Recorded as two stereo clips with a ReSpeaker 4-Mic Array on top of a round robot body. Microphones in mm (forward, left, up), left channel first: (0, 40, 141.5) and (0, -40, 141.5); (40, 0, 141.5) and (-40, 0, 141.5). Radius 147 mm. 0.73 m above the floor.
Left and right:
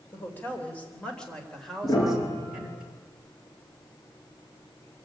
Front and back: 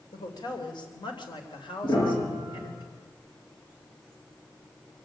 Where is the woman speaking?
30° left, 3.5 m; by 2.8 s 10° right, 4 m.